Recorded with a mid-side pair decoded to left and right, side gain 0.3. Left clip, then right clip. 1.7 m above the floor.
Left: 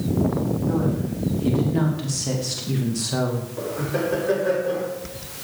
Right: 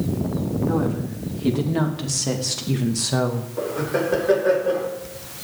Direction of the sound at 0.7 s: 60° right.